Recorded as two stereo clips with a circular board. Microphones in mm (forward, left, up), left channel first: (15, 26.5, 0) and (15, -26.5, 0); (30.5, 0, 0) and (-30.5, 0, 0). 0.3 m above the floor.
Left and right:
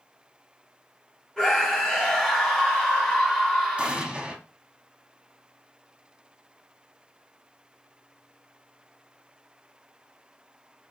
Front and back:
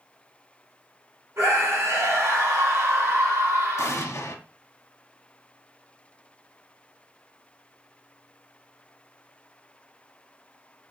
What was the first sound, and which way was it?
A scream, 165° left.